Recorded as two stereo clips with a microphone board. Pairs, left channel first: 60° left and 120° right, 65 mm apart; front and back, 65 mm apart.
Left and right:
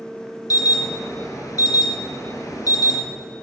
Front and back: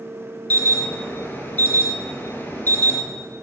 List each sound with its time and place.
0.5 s an alarm: 55° left, 2.0 m